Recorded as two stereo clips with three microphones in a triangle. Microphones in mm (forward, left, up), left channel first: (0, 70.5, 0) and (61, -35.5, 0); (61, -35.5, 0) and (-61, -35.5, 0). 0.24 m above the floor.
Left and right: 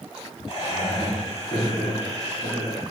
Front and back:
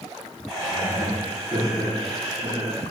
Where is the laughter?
100° left, 1.8 m.